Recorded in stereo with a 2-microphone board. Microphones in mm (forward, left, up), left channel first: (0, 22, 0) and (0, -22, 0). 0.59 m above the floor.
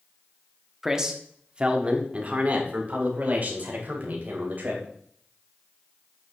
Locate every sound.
0.8 s a man speaking: 10° right (ahead or behind), 1.1 m; by 4.8 s 45° right (ahead or behind), 3 m